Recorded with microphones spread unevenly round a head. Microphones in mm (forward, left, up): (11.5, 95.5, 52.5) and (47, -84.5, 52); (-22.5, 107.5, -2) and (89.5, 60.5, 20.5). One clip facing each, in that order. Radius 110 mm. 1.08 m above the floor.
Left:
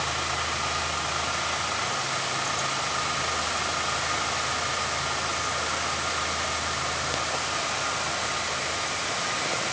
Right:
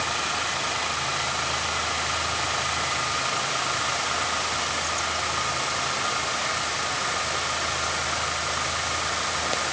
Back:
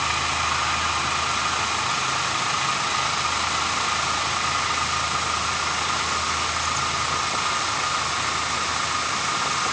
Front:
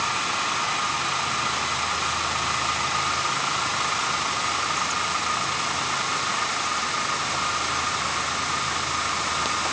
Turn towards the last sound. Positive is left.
No sound to turn to.